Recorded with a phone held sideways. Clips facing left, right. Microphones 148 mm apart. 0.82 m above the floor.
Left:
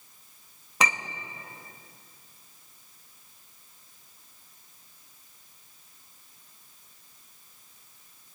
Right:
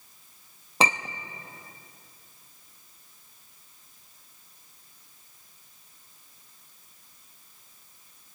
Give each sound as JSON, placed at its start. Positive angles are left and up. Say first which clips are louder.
{"t": 0.8, "sound": "a clink", "louder": "right 3 dB", "side_deg": -30, "distance_m": 0.7}